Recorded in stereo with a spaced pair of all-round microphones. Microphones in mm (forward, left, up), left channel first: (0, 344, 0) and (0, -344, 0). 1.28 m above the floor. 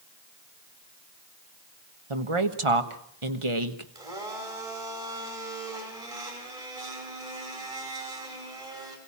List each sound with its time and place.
2.1 s a woman speaking: 45° right (ahead or behind), 1.5 m
4.0 s a blender: 55° right (ahead or behind), 5 m